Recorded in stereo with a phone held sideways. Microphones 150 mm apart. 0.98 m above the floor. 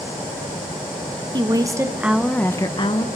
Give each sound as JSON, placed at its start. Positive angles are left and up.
{"t": 1.3, "sound": "a woman speaking", "side_deg": -30, "distance_m": 1.0}